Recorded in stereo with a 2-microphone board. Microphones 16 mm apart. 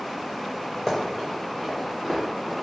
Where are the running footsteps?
15° left (ahead or behind), 1.4 m; by 2.5 s 15° right (ahead or behind), 1.8 m.